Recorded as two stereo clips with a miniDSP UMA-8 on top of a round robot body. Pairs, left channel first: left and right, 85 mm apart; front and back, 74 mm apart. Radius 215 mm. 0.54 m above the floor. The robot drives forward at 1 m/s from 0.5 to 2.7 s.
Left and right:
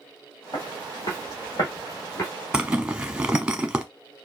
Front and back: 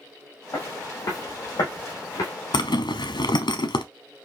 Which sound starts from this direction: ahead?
A zipper, at 2.5 s.